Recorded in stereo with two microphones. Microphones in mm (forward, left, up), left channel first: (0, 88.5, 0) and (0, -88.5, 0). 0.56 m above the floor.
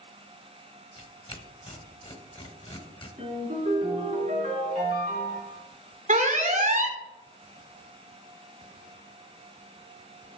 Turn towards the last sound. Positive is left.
turn(degrees=-45)  # may be behind; listen again after turning